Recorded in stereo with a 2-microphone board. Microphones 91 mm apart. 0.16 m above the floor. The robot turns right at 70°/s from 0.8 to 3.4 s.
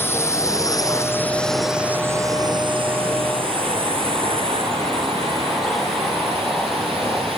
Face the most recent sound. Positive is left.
turn(degrees=-85)